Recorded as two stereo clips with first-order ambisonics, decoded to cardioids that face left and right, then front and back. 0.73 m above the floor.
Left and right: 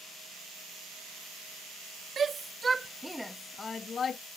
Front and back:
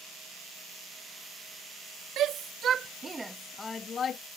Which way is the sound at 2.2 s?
150° right.